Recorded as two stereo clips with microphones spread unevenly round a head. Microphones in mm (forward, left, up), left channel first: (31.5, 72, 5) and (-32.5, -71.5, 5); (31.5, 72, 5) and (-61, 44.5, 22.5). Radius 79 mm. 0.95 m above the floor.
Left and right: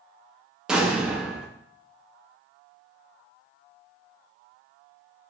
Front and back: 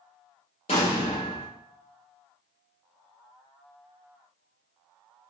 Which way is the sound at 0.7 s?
30° right.